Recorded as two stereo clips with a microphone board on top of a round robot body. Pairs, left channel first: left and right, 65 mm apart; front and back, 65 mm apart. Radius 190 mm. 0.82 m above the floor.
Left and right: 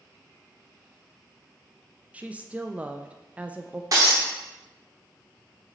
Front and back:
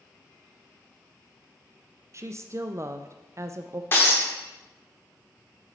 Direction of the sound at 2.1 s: 155° right.